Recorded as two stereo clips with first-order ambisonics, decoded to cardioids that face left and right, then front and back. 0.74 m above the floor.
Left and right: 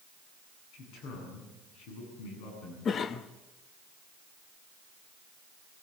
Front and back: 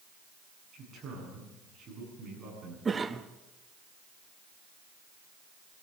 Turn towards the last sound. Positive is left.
turn(degrees=120)